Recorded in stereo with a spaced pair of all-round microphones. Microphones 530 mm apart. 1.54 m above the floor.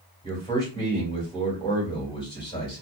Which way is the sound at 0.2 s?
10° left (ahead or behind).